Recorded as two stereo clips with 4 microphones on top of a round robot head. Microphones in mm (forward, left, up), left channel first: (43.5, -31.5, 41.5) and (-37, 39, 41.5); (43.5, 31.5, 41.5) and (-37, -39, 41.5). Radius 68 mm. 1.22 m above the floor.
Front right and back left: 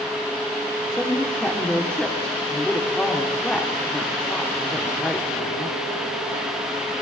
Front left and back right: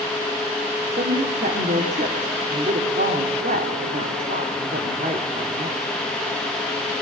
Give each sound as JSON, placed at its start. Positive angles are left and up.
{"t": 0.9, "sound": "a woman speaking", "azimuth_deg": -125, "distance_m": 3.0}